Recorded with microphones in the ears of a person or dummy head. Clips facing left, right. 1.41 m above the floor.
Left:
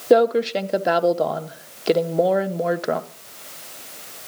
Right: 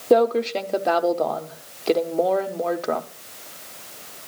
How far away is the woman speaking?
About 0.7 m.